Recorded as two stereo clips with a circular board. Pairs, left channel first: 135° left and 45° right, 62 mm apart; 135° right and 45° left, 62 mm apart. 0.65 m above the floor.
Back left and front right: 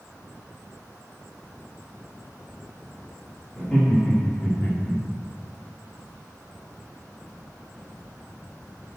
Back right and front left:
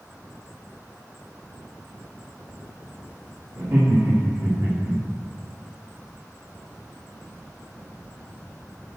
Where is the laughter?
55° left, 1.7 m.